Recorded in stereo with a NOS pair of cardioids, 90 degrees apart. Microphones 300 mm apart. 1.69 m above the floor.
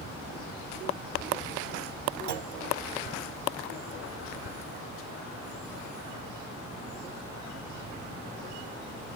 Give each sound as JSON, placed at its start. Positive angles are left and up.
{"t": 2.3, "sound": "a clunk", "azimuth_deg": -70, "distance_m": 1.1}